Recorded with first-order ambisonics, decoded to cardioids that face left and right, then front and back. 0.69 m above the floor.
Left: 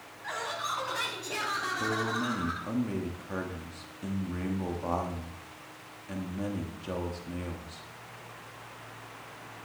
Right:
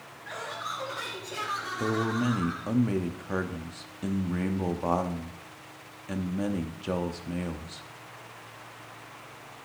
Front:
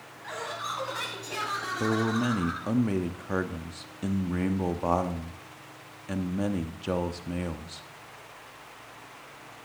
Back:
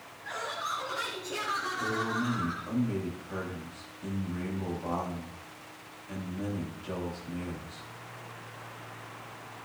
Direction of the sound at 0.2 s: 55° left.